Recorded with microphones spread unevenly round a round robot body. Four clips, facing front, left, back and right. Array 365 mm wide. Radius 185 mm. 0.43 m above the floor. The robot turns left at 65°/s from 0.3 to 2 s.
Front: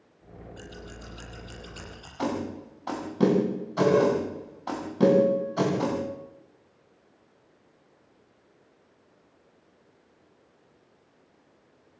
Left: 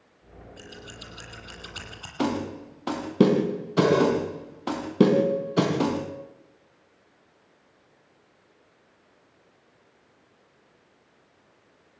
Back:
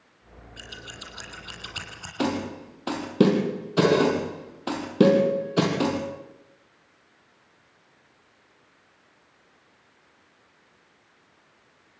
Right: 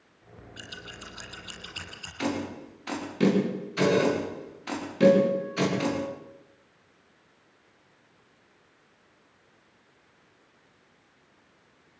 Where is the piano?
125° right, 6.5 m.